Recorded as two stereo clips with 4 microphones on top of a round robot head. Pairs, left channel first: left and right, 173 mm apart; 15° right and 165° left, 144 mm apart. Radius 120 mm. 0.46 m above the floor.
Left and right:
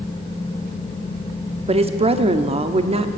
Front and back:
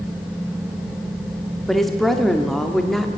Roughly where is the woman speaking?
Right.